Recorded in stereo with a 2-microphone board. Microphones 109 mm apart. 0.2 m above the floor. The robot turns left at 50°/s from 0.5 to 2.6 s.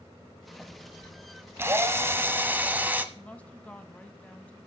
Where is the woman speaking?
10° left (ahead or behind), 1.1 m.